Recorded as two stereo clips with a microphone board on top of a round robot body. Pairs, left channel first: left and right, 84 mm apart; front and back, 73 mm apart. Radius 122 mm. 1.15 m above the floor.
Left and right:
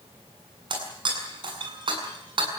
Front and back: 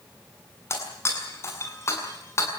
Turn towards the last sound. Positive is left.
turn(degrees=-55)